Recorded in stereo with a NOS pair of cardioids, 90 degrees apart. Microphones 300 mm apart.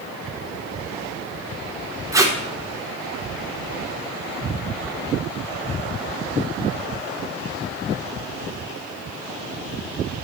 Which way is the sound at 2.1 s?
10° right.